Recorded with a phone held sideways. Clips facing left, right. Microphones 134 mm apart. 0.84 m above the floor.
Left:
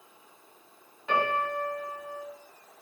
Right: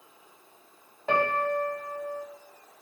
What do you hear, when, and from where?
1.1 s a piano: 45° right (ahead or behind), 0.8 m